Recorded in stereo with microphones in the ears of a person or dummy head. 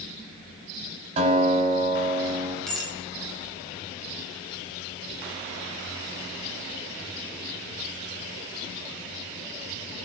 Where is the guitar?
35° right (ahead or behind), 7 m.